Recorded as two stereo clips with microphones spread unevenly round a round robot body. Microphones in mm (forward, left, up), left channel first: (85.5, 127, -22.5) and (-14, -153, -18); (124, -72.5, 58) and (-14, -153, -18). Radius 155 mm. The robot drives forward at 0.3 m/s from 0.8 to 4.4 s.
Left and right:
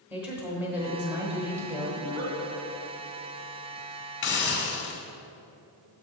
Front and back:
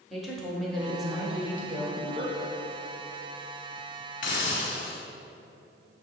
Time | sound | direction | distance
0.1 | a woman speaking | 165° left | 1.0 m
2.0 | a giggle | 130° right | 1.9 m
4.2 | a hiss | 90° left | 0.9 m